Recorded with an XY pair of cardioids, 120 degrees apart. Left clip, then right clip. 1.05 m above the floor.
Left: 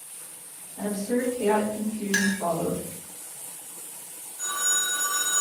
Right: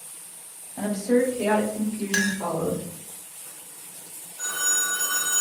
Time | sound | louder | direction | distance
0.8 | a woman speaking | right 5 dB | 60° right | 1.3 m
2.1 | a clink | right 1 dB | 10° right | 0.8 m
4.4 | a phone ringing | right 1 dB | 30° right | 1.9 m